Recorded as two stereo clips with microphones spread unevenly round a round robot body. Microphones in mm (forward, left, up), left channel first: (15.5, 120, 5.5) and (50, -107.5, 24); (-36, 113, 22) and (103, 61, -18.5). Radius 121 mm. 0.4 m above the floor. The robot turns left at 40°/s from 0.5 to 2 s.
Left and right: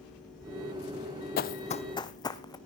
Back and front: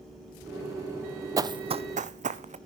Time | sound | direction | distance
1.4 | running footsteps | 55° left | 0.5 m